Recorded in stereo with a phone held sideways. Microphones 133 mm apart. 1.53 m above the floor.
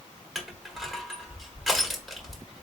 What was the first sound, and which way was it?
Crushing, centre (ahead or behind).